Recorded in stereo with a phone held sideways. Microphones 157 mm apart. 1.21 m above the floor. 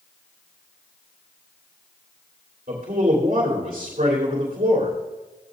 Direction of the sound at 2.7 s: 60° right (ahead or behind).